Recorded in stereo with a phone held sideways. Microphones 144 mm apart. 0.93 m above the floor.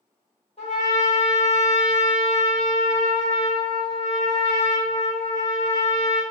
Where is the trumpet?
45° left (ahead or behind), 1.4 m.